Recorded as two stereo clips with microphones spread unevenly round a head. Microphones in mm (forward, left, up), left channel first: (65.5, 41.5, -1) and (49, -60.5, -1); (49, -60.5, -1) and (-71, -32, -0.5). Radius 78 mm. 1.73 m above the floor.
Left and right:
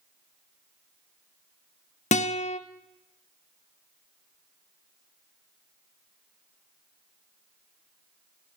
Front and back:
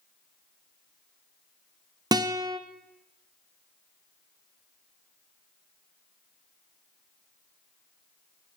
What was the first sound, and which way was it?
A guitar, 100° left.